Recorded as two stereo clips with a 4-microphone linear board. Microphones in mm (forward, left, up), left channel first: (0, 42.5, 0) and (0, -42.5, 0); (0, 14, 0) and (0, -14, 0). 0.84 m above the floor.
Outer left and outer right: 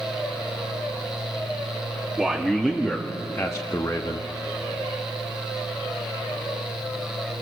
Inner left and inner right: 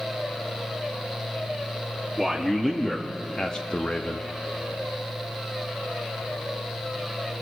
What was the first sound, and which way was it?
A man speaking, centre (ahead or behind).